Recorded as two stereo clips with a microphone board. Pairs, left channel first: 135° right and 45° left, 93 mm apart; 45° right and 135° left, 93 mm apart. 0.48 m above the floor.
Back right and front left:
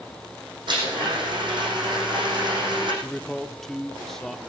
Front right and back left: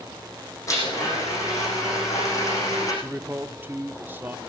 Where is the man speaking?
145° left, 0.8 m.